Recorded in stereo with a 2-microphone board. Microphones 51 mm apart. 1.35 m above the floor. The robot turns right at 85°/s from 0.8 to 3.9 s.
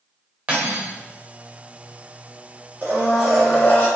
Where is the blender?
45° right, 0.8 m; by 3.9 s 45° left, 0.8 m.